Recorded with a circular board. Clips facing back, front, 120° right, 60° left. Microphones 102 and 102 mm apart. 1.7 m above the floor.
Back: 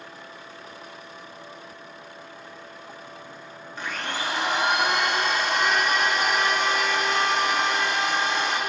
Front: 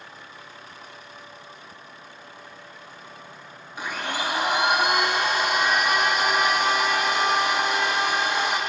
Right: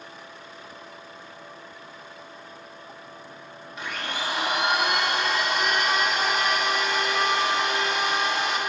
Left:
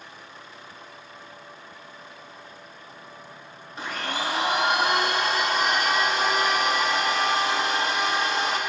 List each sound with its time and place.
3.8 s a blender: 70° left, 1.2 m